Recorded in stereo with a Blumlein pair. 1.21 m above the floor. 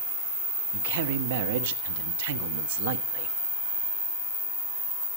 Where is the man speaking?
55° right, 1.2 m.